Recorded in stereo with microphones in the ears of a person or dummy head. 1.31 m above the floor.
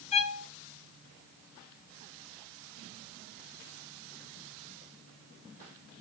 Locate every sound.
0.1 s a violin: 30° left (ahead or behind), 0.6 m